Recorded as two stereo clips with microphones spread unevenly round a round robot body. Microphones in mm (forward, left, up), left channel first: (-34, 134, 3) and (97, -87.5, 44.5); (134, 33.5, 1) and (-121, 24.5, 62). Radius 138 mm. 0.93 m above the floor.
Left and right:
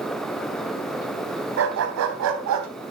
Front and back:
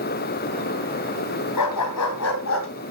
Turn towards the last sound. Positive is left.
turn(degrees=-45)